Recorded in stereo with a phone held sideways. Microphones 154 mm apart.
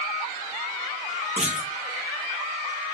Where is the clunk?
45° right (ahead or behind), 1.3 m.